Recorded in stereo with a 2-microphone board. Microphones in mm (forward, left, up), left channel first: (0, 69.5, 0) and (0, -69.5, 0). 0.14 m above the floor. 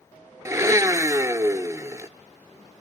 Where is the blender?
20° right (ahead or behind), 0.9 m.